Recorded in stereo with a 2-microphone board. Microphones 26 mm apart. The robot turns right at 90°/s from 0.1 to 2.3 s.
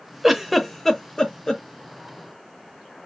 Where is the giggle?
10° right (ahead or behind), 0.5 m; by 1.6 s 25° left (ahead or behind), 0.5 m.